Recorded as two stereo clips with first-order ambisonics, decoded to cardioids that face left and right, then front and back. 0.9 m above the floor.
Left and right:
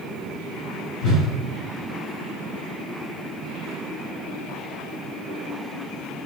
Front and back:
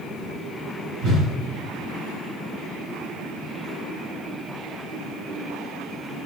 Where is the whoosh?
145° left, 3 m.